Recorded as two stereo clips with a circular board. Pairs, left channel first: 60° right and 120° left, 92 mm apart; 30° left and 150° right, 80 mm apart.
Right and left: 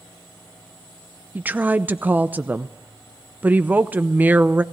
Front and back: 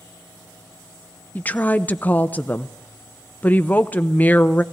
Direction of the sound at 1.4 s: 70° left.